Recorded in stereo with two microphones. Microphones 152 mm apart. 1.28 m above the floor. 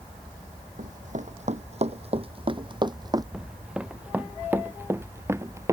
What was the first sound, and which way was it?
Running footsteps, 60° right (ahead or behind).